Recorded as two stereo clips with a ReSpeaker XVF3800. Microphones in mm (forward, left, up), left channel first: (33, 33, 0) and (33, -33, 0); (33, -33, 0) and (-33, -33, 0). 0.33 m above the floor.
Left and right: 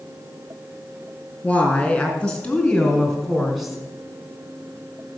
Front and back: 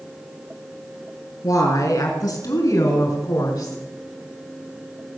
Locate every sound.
1.4 s a woman speaking: 20° left, 4 m; by 3.8 s 5° right, 3 m